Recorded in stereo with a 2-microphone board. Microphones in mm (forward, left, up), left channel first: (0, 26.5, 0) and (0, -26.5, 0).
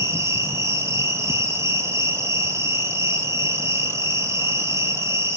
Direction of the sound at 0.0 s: 60° right (ahead or behind).